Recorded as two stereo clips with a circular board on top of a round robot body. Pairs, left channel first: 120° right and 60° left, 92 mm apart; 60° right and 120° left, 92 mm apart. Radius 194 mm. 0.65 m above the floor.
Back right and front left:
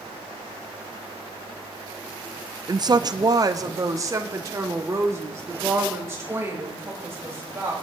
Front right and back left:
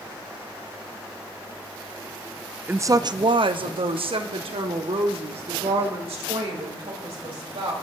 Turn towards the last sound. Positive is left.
turn(degrees=125)